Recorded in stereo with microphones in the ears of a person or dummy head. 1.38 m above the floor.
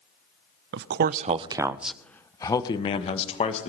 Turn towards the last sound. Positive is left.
turn(degrees=35)  # may be behind; listen again after turning